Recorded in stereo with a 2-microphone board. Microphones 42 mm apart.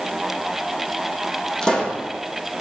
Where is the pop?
20° left (ahead or behind), 4.5 m.